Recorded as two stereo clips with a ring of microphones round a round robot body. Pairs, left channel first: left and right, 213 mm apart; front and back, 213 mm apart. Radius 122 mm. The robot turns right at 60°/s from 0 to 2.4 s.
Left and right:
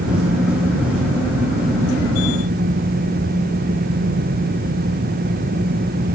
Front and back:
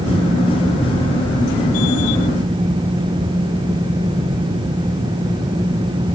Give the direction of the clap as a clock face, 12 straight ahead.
No clap in this recording.